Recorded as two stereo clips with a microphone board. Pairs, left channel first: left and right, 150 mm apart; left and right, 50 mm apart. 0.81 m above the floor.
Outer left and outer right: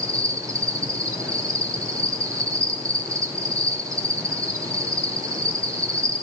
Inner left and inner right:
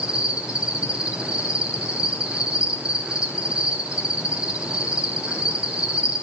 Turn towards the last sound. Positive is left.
turn(degrees=-20)  # may be behind; listen again after turning